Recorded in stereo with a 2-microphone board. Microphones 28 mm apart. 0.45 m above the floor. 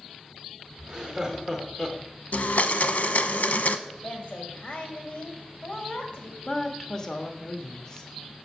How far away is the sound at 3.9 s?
About 2.5 m.